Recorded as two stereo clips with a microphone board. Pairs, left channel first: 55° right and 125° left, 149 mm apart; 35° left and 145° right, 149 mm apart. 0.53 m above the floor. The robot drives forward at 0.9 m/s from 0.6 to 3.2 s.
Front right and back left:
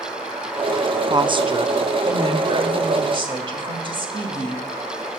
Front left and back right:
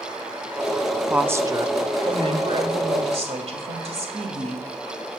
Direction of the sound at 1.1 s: 135° left.